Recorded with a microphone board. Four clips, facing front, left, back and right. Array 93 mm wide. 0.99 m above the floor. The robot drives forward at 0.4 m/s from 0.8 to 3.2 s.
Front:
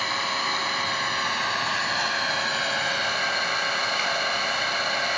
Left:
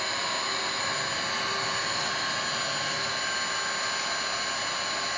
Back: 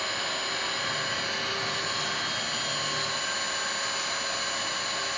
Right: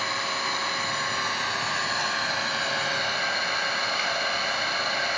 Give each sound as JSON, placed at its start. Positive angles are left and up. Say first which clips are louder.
{"t": 0.0, "sound": "an engine running", "louder": "right 3 dB, front 6 dB", "azimuth_deg": -20, "distance_m": 2.5}